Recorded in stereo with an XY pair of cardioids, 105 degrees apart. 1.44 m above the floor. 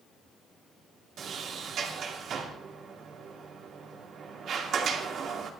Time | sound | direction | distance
1.2 | a sliding door | 65° right | 2.5 m